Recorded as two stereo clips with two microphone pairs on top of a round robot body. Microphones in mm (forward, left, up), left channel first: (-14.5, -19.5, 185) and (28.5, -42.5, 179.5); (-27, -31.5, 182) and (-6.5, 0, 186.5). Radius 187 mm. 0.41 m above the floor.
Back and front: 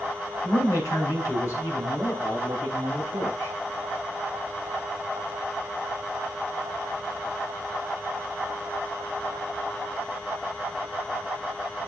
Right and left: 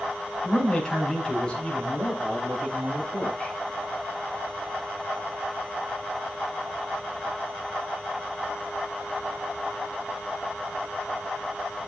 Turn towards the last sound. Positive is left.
turn(degrees=165)